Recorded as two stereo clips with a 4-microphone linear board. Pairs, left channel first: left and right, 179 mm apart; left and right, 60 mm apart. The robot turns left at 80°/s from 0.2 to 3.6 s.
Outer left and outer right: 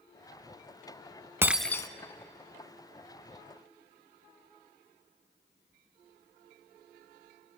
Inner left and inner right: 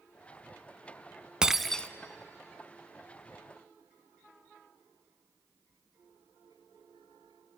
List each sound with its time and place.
1.4 s breaking glass: 165° right, 0.6 m; by 1.9 s 155° left, 0.6 m